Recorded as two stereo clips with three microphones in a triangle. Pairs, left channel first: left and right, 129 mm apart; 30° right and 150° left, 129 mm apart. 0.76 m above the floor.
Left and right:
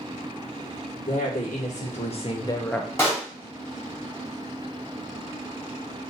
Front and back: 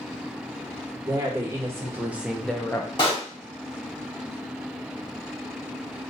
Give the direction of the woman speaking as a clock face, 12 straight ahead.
9 o'clock.